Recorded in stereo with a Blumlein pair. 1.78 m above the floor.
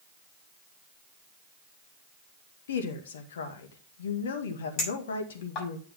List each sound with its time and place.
2.7 s a woman speaking: 60° left, 1.9 m
4.8 s a clink: 35° left, 6.5 m